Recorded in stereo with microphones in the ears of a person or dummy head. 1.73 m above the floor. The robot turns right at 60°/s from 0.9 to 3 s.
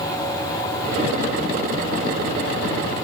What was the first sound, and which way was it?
Only background noise.